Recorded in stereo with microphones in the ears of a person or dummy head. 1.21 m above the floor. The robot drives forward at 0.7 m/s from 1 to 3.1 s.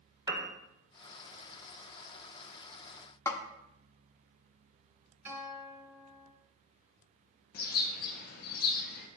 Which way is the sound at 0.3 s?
20° right (ahead or behind).